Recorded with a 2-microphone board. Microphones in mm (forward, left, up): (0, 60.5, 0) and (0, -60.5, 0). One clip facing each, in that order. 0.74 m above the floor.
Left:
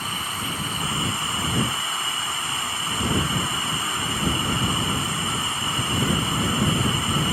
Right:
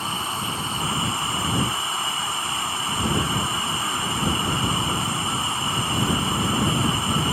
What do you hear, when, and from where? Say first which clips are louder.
0.0 s running water: right 3 dB; 30° right (ahead or behind)